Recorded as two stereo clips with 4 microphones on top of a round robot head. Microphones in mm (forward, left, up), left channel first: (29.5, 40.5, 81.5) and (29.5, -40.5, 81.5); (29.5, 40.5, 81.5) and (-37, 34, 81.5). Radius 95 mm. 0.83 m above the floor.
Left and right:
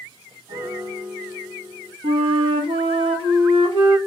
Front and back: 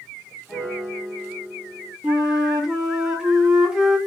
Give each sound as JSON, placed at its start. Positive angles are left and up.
{"t": 0.5, "sound": "a piano", "azimuth_deg": -85, "distance_m": 2.0}
{"t": 2.0, "sound": "a flute", "azimuth_deg": -95, "distance_m": 1.0}